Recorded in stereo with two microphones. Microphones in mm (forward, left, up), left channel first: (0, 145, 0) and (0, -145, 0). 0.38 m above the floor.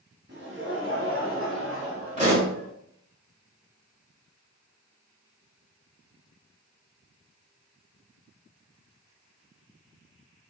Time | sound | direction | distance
0.3 | laughter | 40° right (ahead or behind) | 1.1 m
2.2 | a pop | 25° right (ahead or behind) | 1.5 m